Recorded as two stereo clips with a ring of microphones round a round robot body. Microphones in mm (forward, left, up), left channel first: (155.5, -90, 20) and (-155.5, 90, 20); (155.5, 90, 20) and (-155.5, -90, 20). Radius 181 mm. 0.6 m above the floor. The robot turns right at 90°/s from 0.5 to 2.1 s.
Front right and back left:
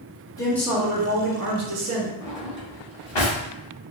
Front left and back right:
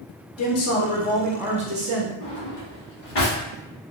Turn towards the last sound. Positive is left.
turn(degrees=-30)